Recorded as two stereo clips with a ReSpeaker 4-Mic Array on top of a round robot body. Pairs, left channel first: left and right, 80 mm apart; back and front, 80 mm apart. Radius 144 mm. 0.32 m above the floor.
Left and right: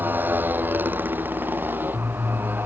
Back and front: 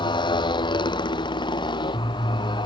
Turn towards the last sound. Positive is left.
turn(degrees=-155)